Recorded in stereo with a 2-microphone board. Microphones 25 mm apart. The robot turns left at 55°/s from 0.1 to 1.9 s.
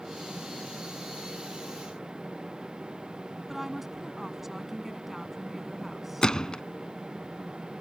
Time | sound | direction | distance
3.5 | a woman speaking | 10° right (ahead or behind) | ?
6.2 | a gunshot | 30° left (ahead or behind) | ?